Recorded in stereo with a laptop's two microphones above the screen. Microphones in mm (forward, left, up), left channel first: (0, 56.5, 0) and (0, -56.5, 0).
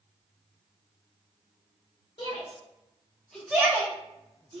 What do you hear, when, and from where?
2.2 s a shout: 55° left (ahead or behind), 1.0 m; by 4.6 s 55° right (ahead or behind), 1.1 m